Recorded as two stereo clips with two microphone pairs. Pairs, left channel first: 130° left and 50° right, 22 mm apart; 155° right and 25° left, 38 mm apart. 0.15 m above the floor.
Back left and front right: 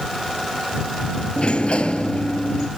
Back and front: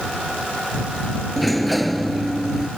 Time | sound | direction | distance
1.4 | a sliding door | 115° left | ?